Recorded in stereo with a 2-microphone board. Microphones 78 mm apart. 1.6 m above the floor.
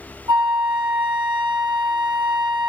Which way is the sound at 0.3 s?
80° right.